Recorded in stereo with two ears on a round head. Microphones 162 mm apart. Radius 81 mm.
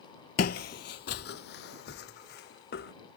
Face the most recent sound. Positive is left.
turn(degrees=65)  # may be behind; listen again after turning